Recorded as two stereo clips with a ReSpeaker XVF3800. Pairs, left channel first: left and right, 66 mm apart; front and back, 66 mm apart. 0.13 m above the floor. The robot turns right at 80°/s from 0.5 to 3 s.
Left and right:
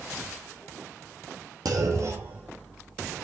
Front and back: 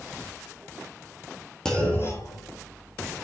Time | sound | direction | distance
1.6 | a clunk | 80° right | 1.4 m